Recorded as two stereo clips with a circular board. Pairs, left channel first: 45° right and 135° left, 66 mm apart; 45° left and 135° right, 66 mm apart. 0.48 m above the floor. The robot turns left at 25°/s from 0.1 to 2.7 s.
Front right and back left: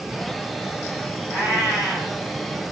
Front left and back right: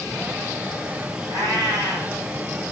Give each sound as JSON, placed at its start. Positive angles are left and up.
{"t": 1.3, "sound": "a cat meowing", "azimuth_deg": -130, "distance_m": 2.5}